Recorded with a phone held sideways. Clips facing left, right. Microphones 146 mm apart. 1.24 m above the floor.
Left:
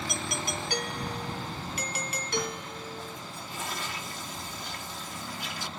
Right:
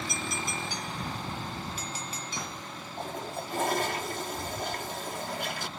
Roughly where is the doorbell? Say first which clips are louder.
Left 1 dB; left.